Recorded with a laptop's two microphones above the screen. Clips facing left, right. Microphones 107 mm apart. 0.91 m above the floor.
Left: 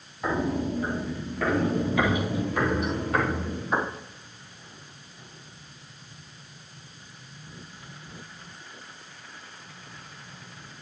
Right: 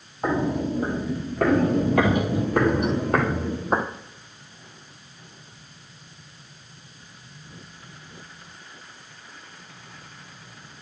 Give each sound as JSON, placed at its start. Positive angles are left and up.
{"t": 0.2, "sound": "footsteps", "side_deg": -30, "distance_m": 1.6}